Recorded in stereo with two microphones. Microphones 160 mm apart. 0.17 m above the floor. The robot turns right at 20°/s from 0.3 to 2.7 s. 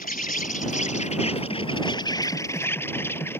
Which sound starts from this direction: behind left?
An insect, at 0.0 s.